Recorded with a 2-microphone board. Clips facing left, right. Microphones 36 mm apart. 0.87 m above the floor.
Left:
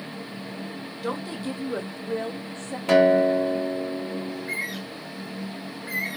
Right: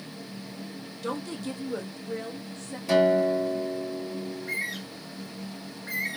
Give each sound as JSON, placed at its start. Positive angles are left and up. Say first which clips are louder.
{"t": 1.0, "sound": "a woman speaking", "louder": "left 2 dB", "side_deg": 15, "distance_m": 0.8}
{"t": 2.9, "sound": "a guitar", "louder": "left 4 dB", "side_deg": 55, "distance_m": 1.0}
{"t": 4.3, "sound": "a bird", "louder": "left 2 dB", "side_deg": 5, "distance_m": 1.0}